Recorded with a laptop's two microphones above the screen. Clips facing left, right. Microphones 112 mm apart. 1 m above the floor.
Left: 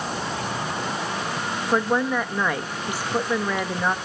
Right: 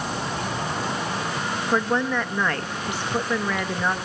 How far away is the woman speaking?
About 1.1 m.